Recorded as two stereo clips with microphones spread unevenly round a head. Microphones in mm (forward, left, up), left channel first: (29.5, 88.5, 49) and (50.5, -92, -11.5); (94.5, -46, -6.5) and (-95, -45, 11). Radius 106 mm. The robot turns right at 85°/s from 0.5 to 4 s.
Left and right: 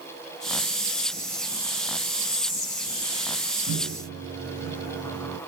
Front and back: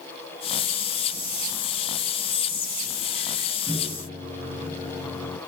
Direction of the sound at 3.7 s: 90° right.